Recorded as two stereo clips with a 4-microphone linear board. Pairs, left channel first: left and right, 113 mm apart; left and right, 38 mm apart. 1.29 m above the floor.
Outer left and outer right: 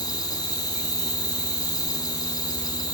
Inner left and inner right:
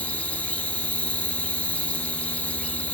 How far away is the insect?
About 3.5 m.